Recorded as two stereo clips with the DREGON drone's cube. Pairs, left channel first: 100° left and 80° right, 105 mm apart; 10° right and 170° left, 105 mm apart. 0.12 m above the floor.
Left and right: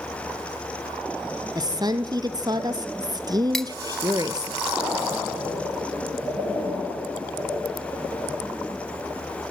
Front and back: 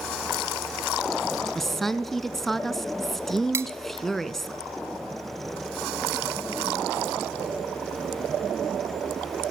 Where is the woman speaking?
100° right, 1.6 m.